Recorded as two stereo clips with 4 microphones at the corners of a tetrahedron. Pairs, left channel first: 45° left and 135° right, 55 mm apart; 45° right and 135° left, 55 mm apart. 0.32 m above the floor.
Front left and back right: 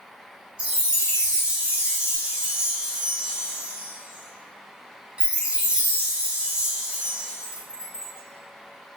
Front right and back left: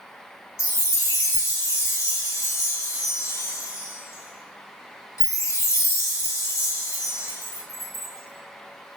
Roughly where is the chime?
Ahead right.